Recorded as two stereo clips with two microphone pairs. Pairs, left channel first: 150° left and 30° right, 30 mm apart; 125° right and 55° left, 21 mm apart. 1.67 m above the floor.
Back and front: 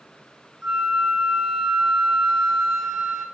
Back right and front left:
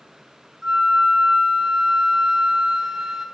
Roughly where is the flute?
Ahead.